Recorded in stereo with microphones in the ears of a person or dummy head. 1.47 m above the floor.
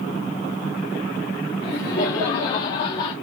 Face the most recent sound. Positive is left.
turn(degrees=25)  # may be behind; listen again after turning